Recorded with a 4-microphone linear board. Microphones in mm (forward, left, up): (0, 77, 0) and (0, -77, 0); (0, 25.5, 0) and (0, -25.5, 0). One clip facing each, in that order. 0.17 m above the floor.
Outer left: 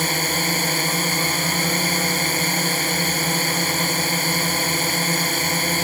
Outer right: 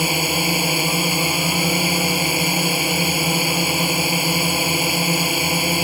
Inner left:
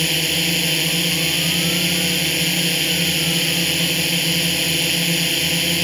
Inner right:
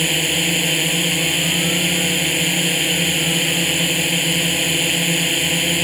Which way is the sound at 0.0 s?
10° right (ahead or behind).